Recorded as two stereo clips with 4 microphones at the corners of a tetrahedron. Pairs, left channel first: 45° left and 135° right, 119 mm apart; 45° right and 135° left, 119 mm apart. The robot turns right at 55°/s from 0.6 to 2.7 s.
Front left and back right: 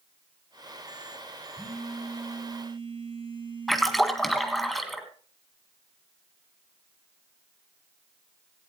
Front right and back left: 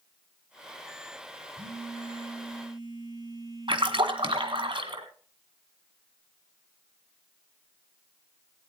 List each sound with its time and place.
1.6 s a phone buzzing: 120° left, 4.5 m; by 4.7 s 175° right, 4.5 m
3.7 s a splash: 135° left, 1.9 m